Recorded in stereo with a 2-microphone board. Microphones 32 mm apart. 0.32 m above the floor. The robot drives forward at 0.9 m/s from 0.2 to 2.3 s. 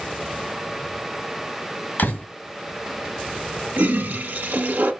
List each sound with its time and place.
2.0 s a door slam: 60° left (ahead or behind), 1.9 m; by 2.3 s 55° left (ahead or behind), 2.0 m
3.8 s a toilet flushing: 60° right (ahead or behind), 1.1 m